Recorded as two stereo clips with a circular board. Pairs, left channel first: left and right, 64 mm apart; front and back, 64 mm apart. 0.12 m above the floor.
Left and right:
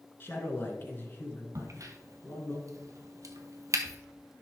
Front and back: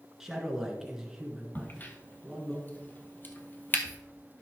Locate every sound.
0.2 s a man speaking: 100° left, 1.8 m
1.6 s a crack: 60° right, 1.0 m